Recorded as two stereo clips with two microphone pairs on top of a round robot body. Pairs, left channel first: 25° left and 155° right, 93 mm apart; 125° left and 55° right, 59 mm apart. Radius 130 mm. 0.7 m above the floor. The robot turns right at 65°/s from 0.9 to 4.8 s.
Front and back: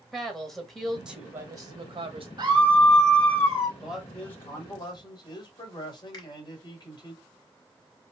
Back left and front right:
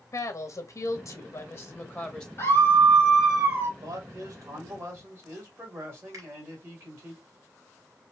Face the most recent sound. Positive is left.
turn(degrees=-15)